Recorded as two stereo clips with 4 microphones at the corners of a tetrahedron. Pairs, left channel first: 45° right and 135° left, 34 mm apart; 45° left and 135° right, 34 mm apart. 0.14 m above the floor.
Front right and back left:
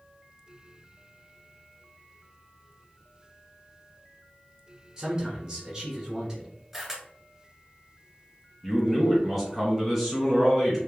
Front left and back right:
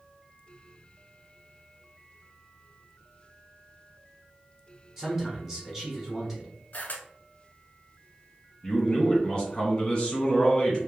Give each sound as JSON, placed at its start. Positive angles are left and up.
{"t": 5.0, "sound": "a man speaking", "azimuth_deg": 180, "distance_m": 1.1}
{"t": 6.7, "sound": "a camera shutter", "azimuth_deg": 55, "distance_m": 0.7}
{"t": 8.6, "sound": "a man speaking", "azimuth_deg": 50, "distance_m": 1.4}